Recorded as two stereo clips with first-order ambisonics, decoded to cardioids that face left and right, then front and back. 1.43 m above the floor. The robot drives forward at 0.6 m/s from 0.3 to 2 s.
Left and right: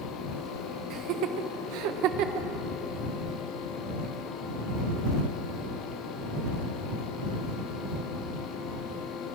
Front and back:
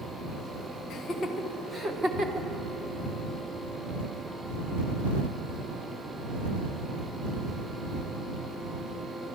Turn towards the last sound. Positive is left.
turn(degrees=-105)